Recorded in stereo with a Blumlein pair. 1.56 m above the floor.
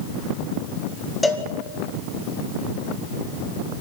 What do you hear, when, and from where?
1.2 s a cowbell: 5° left, 2 m